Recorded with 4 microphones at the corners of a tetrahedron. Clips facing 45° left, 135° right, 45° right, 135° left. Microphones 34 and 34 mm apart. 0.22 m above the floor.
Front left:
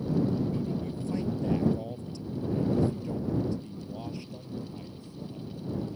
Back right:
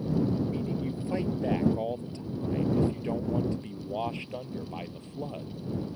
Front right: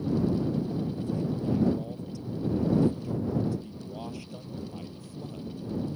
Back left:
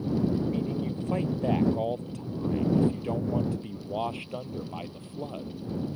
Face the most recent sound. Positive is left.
turn(degrees=-175)